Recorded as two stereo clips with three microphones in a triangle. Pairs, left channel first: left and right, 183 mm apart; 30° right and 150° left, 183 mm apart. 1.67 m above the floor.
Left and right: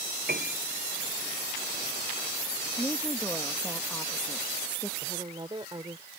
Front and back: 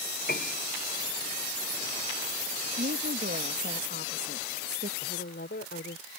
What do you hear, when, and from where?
0.3 s a piano: 60° right
2.8 s a woman speaking: 170° left
5.0 s a woman speaking: 25° right